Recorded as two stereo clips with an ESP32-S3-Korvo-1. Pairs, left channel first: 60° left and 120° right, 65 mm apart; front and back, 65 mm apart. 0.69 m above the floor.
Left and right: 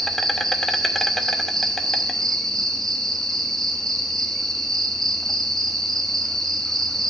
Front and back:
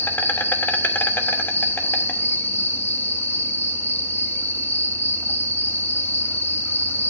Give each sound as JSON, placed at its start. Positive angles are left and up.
{"t": 0.0, "sound": "an insect", "azimuth_deg": -20, "distance_m": 1.0}